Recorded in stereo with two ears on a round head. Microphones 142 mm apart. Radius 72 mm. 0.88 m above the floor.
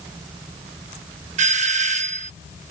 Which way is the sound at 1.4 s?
50° right (ahead or behind).